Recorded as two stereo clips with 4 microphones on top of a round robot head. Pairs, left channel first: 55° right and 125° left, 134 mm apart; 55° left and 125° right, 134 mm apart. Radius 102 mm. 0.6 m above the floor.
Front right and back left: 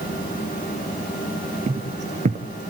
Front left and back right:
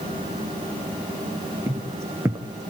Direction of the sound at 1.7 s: 160° left.